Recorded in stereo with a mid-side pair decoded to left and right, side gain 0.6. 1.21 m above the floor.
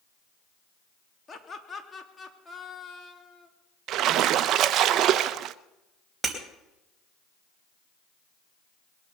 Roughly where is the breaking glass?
Ahead.